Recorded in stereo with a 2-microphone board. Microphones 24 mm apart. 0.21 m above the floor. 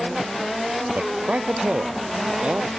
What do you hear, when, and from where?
0.9 s a man speaking: 60° right (ahead or behind); by 2.7 s 75° right (ahead or behind)